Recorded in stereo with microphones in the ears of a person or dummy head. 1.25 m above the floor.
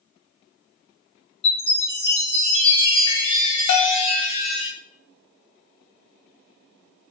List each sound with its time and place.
1.4 s a chime: 30° left (ahead or behind), 3 m
3.7 s a bell: 65° left (ahead or behind), 1.1 m